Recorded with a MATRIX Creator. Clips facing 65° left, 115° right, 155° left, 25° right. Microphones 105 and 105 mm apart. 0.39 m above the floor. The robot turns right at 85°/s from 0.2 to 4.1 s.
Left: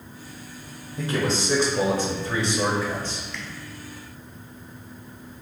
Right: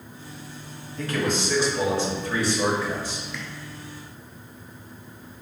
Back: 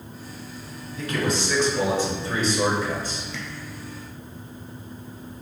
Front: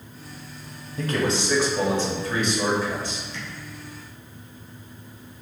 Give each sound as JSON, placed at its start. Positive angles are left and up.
{"t": 1.0, "sound": "a man speaking", "azimuth_deg": 0, "distance_m": 1.2}
{"t": 3.3, "sound": "tapping", "azimuth_deg": 160, "distance_m": 1.3}